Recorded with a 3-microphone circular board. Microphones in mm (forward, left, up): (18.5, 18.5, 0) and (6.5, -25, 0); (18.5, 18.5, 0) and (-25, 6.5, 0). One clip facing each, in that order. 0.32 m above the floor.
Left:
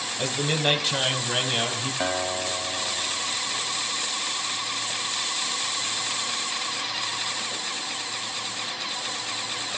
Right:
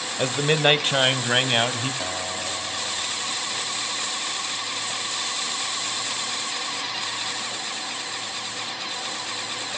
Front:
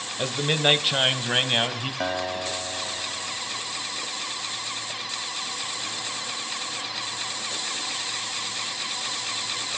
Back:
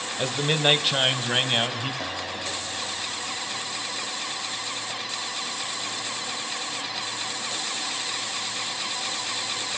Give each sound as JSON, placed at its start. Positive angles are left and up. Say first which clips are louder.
{"t": 0.2, "sound": "a man speaking", "louder": "right 5 dB, even", "azimuth_deg": -75, "distance_m": 1.1}
{"t": 2.0, "sound": "a guitar", "louder": "left 3 dB, front 4 dB", "azimuth_deg": 30, "distance_m": 2.0}